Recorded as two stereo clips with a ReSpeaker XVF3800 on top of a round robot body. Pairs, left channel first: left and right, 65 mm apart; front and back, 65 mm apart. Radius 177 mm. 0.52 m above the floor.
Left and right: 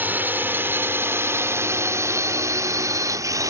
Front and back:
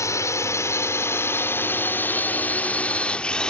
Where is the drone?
30° right; by 3.5 s 75° right.